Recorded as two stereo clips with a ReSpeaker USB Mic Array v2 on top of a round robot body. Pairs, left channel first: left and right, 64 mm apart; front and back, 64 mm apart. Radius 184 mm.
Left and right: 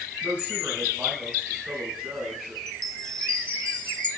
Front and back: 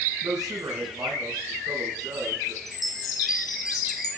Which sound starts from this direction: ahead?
A chime, at 2.7 s.